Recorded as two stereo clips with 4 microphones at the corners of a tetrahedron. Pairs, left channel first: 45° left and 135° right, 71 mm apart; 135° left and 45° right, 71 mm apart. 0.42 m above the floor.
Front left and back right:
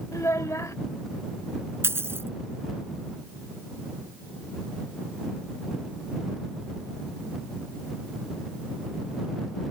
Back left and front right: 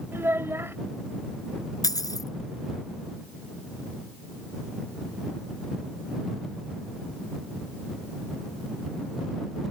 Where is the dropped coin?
170° left.